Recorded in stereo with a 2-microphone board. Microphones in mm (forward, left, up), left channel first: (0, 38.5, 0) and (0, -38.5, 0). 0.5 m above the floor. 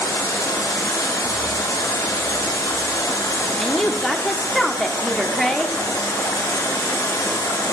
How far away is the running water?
About 2.0 m.